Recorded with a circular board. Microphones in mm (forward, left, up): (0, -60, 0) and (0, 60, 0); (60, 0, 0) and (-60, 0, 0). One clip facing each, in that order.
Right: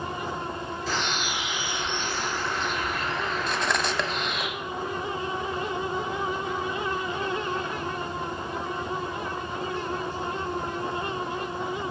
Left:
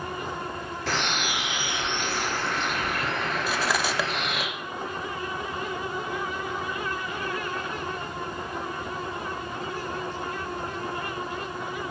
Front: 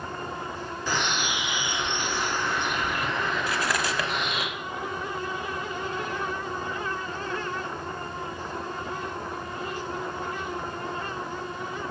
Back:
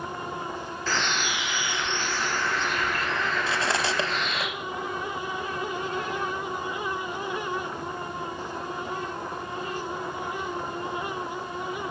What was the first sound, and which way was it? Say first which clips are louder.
A bird: left 2 dB, even; 75° left.